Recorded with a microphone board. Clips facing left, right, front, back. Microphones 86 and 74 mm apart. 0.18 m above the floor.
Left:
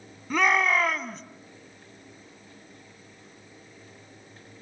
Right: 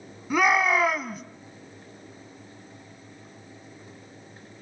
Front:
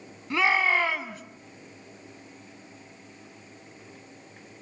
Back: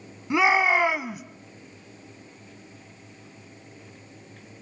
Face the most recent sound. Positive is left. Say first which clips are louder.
# right 2 dB, back 3 dB
turn(degrees=-155)